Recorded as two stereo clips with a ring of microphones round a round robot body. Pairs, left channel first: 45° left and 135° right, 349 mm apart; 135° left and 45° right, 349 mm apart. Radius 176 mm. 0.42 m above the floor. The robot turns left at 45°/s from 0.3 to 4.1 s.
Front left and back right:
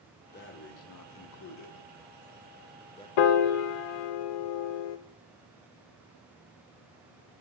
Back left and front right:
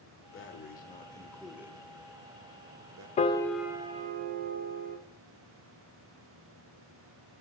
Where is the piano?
65° left, 0.6 m; by 5.0 s 20° left, 0.6 m.